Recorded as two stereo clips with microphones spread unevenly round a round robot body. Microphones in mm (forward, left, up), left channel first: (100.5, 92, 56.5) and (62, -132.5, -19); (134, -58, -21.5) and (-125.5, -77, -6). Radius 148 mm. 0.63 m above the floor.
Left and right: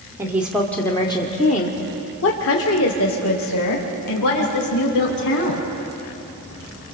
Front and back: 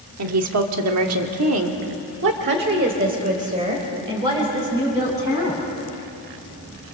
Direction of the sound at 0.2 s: 165° right.